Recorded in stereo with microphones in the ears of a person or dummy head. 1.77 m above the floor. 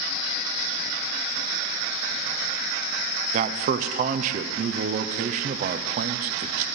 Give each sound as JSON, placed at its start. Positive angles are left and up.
{"t": 3.3, "sound": "a man speaking", "side_deg": -45, "distance_m": 0.7}